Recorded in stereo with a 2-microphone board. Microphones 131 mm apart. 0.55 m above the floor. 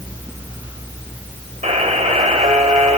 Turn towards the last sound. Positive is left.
turn(degrees=-55)  # may be behind; listen again after turning